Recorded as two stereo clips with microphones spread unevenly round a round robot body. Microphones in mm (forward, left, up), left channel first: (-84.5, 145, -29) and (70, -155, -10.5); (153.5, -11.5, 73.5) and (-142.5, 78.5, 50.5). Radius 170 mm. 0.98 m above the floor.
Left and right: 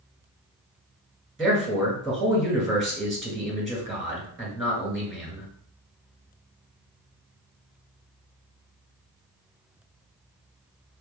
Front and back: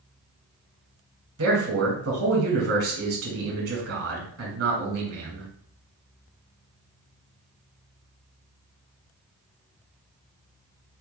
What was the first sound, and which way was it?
A man speaking, 155° right.